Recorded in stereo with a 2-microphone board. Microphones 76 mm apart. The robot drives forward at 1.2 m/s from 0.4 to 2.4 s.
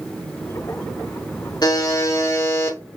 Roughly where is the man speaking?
I don't hear a man speaking.